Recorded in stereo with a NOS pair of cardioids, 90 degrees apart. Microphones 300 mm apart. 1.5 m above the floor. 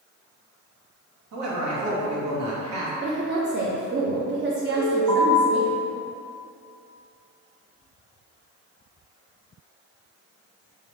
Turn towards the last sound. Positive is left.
turn(degrees=-65)